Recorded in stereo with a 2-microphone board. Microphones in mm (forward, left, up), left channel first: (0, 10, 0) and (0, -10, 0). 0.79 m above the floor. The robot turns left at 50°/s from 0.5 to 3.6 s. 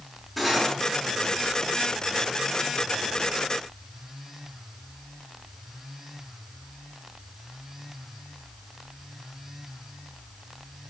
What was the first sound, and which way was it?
Cutlery clinking, centre (ahead or behind).